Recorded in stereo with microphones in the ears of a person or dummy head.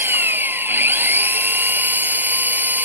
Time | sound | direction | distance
0.0 | an engine running | 5° right (ahead or behind) | ?